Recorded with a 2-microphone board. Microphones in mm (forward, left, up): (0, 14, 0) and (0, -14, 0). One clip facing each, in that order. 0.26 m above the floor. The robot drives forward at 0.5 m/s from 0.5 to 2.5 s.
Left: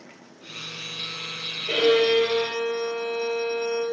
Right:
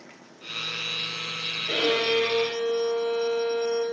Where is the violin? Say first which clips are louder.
Left 5 dB; 55° left (ahead or behind), 5.5 m; by 3.8 s 50° left (ahead or behind), 6 m.